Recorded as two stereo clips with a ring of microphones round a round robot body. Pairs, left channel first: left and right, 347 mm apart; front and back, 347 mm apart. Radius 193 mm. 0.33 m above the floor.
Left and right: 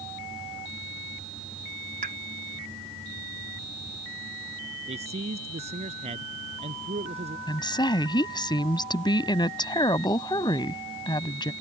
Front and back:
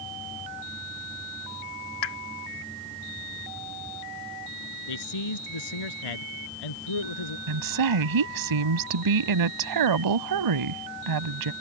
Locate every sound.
2.0 s a pop: 20° right
4.9 s a man speaking: 15° right
7.5 s a woman speaking: 165° left